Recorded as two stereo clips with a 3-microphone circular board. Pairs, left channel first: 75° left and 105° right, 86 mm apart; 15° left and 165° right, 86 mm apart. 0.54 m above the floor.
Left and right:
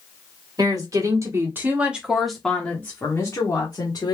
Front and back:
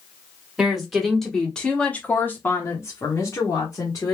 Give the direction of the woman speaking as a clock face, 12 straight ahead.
3 o'clock.